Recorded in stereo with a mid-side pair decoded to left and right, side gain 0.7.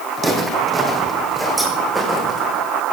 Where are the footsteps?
25° right, 3.5 m; by 2.6 s 10° left, 5 m.